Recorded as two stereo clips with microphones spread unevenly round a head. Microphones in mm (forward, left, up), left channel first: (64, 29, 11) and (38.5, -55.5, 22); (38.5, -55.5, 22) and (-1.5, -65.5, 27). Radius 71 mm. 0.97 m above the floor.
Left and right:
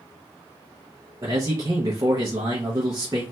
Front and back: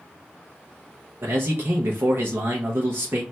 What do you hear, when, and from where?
1.2 s a man speaking: 160° right, 0.6 m